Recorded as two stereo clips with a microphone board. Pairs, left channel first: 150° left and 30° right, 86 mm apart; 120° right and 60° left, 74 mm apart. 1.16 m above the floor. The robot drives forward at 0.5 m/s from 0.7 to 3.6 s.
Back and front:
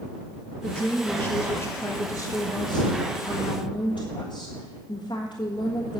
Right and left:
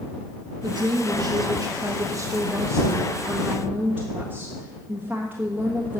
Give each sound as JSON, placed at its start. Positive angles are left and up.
{"t": 0.6, "sound": "a woman speaking", "azimuth_deg": 65, "distance_m": 1.4}